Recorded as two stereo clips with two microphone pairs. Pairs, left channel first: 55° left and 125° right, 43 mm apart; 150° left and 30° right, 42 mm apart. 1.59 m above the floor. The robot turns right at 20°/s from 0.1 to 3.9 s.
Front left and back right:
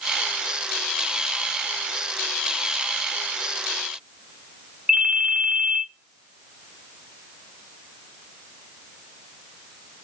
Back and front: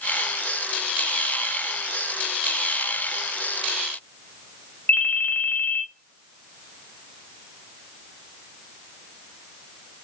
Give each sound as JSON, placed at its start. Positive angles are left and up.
{"t": 4.9, "sound": "a ringtone", "azimuth_deg": 170, "distance_m": 0.7}